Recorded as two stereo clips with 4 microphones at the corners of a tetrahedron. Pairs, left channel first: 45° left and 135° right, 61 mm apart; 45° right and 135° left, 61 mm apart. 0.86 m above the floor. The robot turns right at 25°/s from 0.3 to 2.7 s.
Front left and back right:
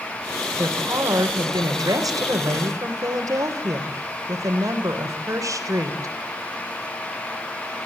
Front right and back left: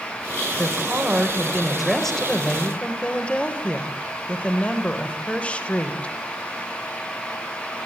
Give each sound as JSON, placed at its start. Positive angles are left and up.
{"t": 0.6, "sound": "a woman speaking", "azimuth_deg": -165, "distance_m": 3.5}